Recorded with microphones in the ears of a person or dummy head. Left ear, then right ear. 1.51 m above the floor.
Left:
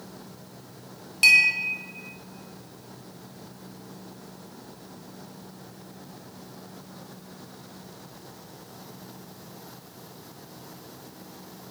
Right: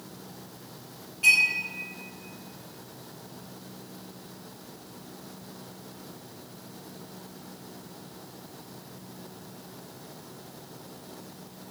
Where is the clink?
50° left (ahead or behind), 0.6 m.